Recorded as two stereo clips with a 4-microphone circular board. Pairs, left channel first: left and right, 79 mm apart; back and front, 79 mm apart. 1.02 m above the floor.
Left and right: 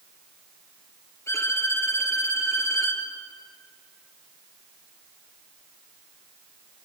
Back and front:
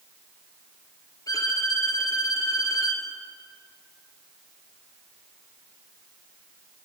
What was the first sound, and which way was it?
A violin, 145° left.